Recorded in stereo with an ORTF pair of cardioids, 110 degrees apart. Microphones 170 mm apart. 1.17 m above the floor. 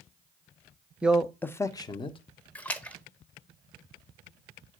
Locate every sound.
1.0 s a man speaking: 5° right, 0.7 m; by 2.2 s 30° left, 1.0 m
2.5 s a splash: 10° left, 1.0 m